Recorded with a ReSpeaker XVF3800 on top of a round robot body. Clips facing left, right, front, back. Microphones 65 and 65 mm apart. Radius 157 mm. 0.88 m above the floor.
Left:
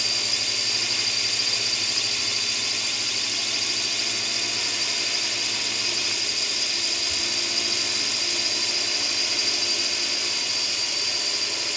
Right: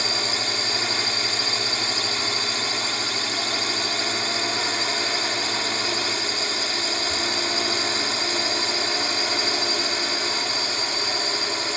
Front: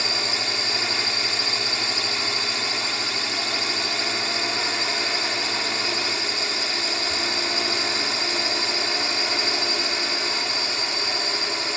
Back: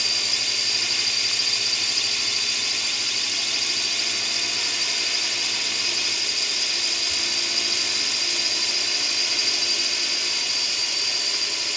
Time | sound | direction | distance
0.0 | a drone | 50° right | ?